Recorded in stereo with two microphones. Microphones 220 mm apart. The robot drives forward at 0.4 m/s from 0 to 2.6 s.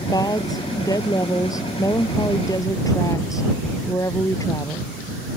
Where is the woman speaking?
15° left (ahead or behind).